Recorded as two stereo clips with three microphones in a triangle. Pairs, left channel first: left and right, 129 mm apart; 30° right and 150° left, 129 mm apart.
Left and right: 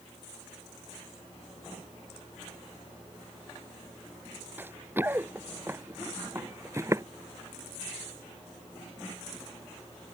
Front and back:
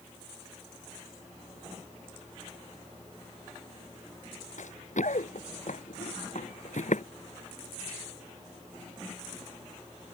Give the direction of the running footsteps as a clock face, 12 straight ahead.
1 o'clock.